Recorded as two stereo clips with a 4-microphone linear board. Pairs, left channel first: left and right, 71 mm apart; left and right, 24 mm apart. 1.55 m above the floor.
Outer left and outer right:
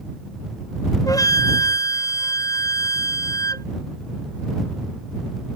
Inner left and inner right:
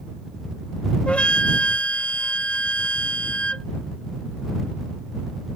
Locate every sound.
1.1 s a flute: 55° left (ahead or behind)